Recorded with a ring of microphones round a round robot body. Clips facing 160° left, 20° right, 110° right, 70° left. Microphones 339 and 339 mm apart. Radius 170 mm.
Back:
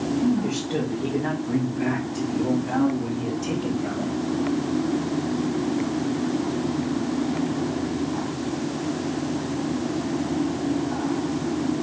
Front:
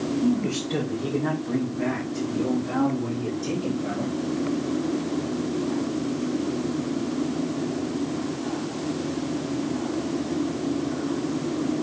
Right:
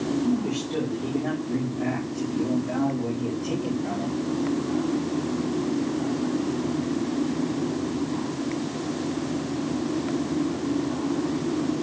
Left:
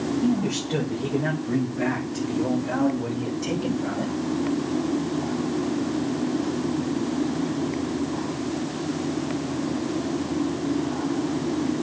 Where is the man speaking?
65° left, 3.5 m; by 4.1 s 90° left, 5 m.